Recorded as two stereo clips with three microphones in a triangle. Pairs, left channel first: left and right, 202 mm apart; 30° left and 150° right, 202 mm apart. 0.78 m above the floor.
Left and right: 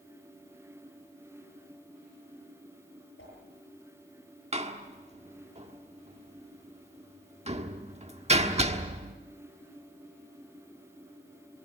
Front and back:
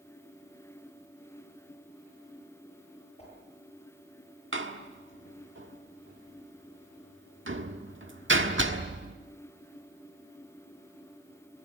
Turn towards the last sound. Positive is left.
turn(degrees=-145)